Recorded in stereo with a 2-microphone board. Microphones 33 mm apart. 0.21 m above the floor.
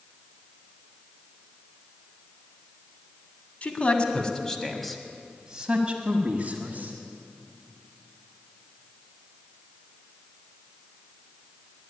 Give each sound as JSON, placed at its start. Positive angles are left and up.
{"t": 3.6, "sound": "a man speaking", "side_deg": 40, "distance_m": 1.5}